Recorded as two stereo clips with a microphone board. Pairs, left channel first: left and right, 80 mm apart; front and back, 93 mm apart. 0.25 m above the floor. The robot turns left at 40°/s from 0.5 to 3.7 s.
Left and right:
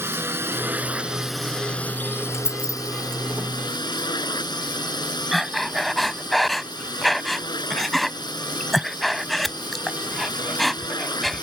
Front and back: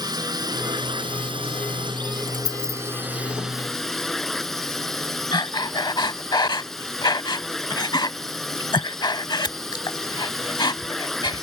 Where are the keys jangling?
35° left; by 2.8 s 20° left.